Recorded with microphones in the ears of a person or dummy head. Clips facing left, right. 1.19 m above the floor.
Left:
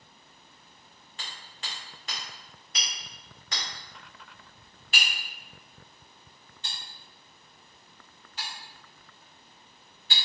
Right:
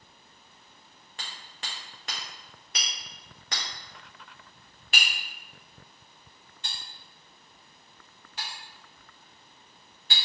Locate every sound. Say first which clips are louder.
1.2 s hammering: right 1 dB; 45° right (ahead or behind), 0.6 m